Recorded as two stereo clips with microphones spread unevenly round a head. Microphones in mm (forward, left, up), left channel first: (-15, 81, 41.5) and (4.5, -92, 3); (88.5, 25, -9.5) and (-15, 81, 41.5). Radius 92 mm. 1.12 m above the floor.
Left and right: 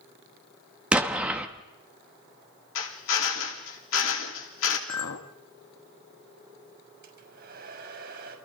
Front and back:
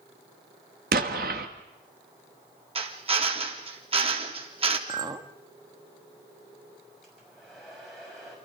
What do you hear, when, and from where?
0.9 s an explosion: 165° right, 1.4 m
2.8 s a drill: 110° left, 3.5 m
4.9 s a clink: 95° left, 1.3 m
7.0 s a hair dryer: 120° right, 6 m